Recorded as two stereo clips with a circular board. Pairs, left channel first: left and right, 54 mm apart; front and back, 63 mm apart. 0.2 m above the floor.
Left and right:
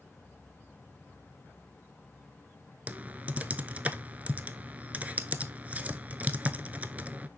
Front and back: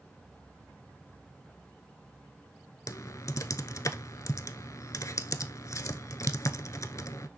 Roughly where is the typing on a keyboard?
Ahead right.